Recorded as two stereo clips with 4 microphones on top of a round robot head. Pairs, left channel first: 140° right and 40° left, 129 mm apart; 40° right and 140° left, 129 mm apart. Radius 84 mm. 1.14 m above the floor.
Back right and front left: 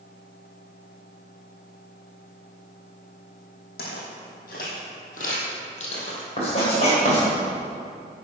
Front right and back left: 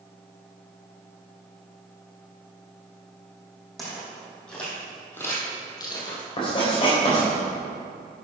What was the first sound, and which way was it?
Footsteps, 130° right.